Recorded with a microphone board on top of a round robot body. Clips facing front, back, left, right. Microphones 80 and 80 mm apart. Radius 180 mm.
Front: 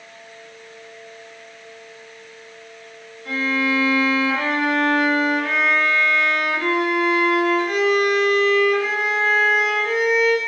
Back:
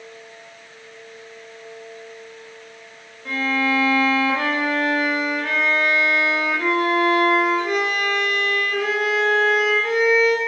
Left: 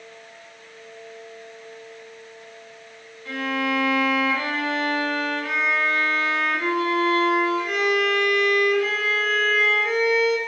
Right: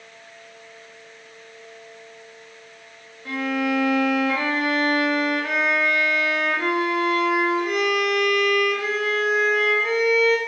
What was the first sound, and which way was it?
A violin, 140° right.